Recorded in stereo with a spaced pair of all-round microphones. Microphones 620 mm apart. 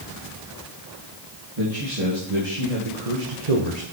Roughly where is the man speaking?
Right.